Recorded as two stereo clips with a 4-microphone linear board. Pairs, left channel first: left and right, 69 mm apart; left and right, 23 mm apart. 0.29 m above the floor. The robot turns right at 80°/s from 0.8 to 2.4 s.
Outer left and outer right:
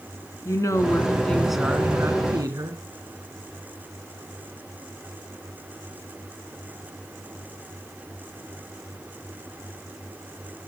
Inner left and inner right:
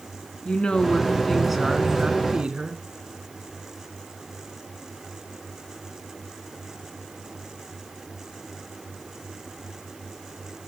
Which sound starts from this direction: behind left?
A woman speaking, at 0.5 s.